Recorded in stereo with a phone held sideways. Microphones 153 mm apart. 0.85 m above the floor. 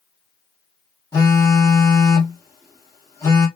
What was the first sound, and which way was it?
A phone buzzing, 20° left (ahead or behind).